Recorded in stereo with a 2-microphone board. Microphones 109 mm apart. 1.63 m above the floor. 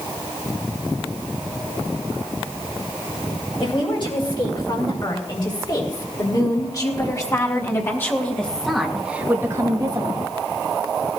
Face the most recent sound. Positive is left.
turn(degrees=-55)  # may be behind; listen again after turning